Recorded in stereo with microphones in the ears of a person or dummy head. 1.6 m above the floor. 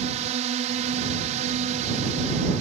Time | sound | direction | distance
0.0 | a drone | 40° right (ahead or behind) | ?